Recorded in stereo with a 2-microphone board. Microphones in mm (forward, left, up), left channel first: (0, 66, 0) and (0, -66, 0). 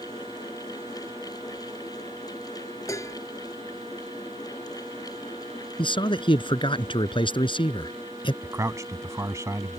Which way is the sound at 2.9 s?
25° left (ahead or behind).